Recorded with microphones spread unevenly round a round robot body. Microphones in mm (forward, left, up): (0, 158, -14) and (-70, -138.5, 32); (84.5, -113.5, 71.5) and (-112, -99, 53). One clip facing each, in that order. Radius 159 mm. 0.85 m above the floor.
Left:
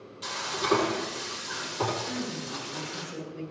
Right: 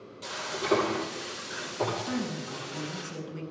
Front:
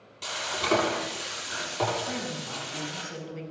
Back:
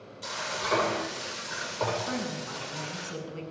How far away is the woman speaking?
About 7.5 m.